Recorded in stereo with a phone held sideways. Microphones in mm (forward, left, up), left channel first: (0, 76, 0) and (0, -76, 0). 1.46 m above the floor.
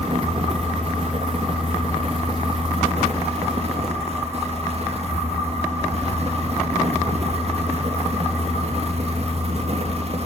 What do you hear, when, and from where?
0.0 s a fan: 50° right (ahead or behind), 3 m